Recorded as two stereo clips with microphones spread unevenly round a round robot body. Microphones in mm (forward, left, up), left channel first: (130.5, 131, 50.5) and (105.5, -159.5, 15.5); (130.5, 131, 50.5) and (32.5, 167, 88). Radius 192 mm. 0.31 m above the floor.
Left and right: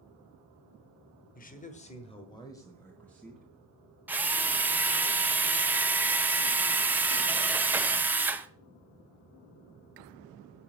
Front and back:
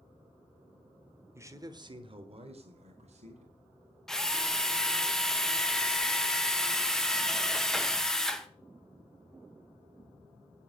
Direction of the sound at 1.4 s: 75° left.